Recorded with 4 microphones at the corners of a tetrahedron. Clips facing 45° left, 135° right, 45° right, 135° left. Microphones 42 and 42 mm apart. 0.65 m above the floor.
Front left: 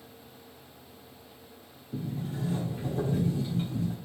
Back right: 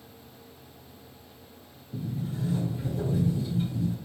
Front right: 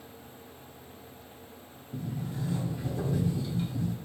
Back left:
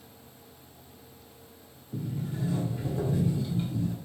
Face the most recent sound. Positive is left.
turn(degrees=65)